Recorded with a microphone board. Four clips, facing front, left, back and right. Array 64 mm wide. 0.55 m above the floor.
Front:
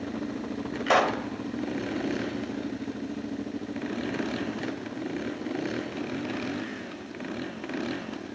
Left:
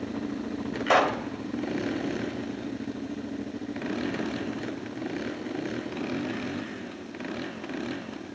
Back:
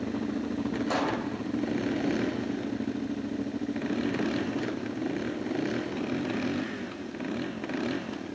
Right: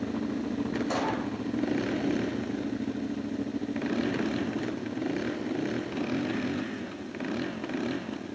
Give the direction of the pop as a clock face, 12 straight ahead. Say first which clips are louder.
Left 11 dB, front 8 dB; 10 o'clock.